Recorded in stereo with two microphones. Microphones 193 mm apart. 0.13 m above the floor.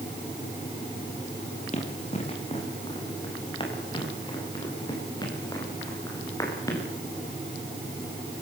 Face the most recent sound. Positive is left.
turn(degrees=15)  # may be behind; listen again after turning